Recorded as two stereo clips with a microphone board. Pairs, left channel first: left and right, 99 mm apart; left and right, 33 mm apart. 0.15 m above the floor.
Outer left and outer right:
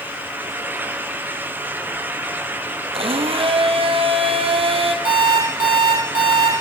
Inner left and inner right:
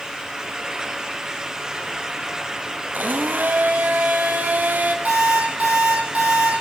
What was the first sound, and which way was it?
A blender, 75° right (ahead or behind).